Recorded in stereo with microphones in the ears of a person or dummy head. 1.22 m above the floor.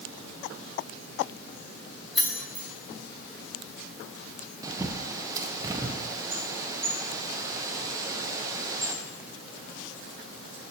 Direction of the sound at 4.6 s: 20° right (ahead or behind).